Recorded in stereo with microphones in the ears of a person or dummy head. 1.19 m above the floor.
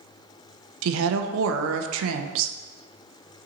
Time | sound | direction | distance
0.8 | a woman speaking | 85° right | 0.5 m